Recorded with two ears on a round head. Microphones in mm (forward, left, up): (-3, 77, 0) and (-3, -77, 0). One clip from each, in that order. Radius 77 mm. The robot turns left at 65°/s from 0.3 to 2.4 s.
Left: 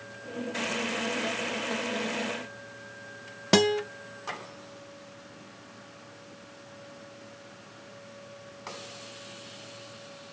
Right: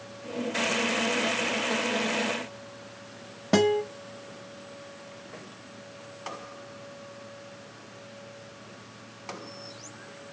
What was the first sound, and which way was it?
A guitar, 65° left (ahead or behind).